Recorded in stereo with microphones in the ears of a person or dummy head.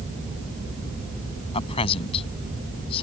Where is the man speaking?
30° left (ahead or behind).